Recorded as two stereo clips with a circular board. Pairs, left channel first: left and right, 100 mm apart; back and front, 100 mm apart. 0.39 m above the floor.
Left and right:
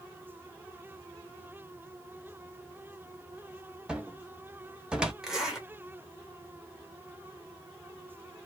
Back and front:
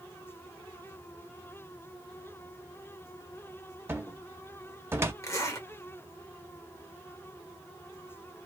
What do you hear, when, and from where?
3.9 s a cupboard door: 20° right, 0.7 m
5.2 s a zipper: 170° right, 1.2 m